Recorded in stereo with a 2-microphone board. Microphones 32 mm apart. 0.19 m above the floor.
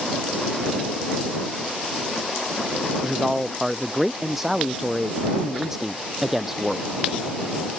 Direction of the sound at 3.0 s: 10° right (ahead or behind).